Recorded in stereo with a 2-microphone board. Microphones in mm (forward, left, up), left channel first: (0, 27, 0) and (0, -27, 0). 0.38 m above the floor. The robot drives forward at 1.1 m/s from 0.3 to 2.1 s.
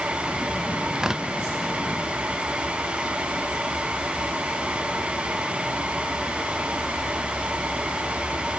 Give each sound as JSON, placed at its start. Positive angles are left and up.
{"t": 0.9, "sound": "tearing paper", "side_deg": -15}